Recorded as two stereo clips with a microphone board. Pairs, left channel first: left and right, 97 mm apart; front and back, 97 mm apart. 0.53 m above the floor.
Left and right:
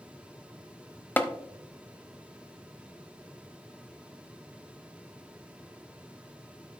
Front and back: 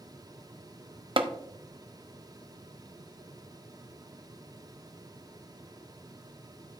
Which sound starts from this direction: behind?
Tapping, at 1.2 s.